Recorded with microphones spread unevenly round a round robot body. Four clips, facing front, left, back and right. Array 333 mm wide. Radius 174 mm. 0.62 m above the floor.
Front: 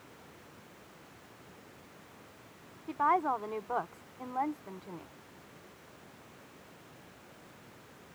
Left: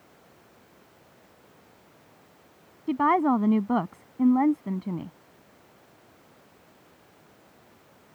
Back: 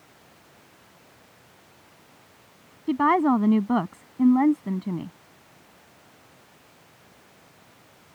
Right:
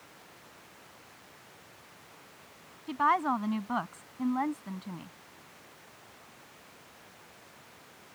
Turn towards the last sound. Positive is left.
turn(degrees=150)